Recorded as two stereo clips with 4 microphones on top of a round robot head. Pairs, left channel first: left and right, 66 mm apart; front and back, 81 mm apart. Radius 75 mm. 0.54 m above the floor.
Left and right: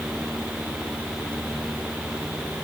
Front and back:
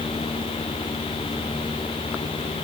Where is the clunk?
I don't hear a clunk.